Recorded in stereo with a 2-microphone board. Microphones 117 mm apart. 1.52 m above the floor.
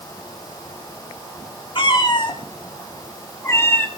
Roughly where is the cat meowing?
Left.